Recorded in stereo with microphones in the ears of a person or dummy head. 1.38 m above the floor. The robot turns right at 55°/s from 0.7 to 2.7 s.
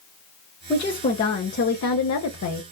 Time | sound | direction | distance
0.7 | a woman speaking | 15° left | 0.9 m